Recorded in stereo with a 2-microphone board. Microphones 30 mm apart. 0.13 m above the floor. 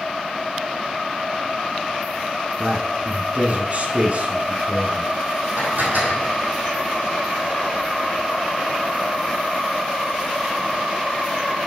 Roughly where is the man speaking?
Right.